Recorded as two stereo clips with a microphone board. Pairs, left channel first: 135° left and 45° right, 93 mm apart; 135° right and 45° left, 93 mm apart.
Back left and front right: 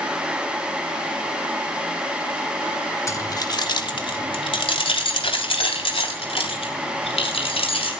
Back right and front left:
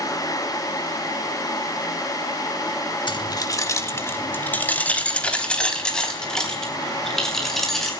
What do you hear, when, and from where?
3.1 s keys jangling: 170° right, 1.3 m; by 7.9 s 140° left, 6.5 m